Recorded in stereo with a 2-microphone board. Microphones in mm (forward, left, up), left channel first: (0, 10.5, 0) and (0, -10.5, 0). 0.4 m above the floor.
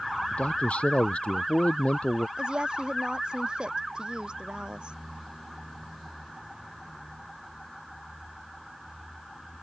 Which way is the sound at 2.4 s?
50° right (ahead or behind).